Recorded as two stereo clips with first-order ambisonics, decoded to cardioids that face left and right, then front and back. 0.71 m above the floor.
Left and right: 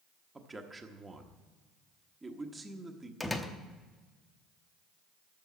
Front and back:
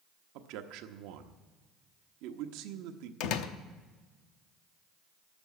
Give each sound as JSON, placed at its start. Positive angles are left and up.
{"t": 0.3, "sound": "a man speaking", "azimuth_deg": -165, "distance_m": 1.1}
{"t": 3.2, "sound": "a door slam", "azimuth_deg": 5, "distance_m": 0.8}